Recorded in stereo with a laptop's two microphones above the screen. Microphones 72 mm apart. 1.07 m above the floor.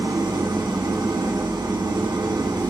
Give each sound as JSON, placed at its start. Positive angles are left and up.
{"t": 0.0, "sound": "an engine running", "side_deg": -75, "distance_m": 1.8}